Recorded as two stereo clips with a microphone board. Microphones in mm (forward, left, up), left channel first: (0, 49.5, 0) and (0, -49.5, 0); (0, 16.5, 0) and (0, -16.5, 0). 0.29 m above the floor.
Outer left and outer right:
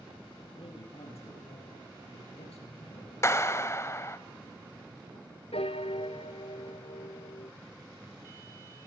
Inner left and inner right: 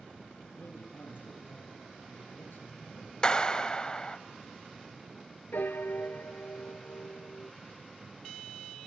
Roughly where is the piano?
Left.